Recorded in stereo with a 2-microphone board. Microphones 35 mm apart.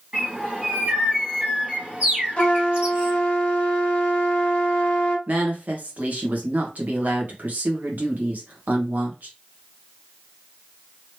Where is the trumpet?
30° left (ahead or behind), 1.4 m.